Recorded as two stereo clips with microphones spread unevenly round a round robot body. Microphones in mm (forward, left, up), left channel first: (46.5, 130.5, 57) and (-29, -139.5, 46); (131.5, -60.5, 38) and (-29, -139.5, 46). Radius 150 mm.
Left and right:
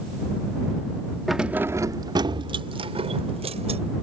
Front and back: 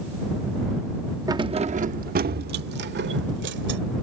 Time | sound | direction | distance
1.3 | keys jangling | 170° left | ?